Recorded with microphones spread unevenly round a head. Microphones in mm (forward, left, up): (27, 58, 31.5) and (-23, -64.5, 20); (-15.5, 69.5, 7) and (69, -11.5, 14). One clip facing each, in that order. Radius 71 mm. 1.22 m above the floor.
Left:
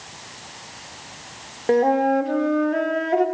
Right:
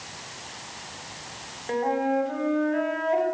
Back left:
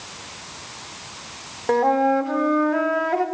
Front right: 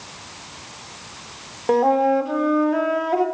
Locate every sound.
1.7 s a flute: 35° left, 4 m